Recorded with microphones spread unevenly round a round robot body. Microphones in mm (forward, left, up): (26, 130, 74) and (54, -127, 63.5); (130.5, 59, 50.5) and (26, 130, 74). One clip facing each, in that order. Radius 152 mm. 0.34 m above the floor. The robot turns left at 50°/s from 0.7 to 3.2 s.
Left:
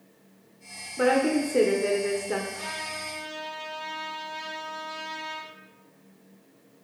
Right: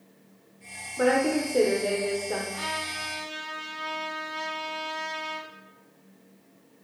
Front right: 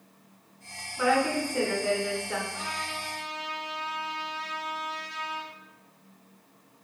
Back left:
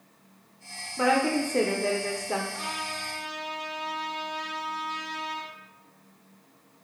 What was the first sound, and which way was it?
A woman speaking, straight behind.